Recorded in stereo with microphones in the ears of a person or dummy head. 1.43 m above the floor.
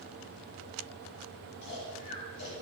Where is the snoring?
65° left (ahead or behind), 9 m.